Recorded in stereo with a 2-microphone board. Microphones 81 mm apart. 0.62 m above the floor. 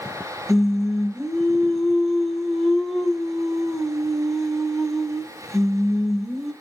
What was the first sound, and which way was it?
Singing, centre (ahead or behind).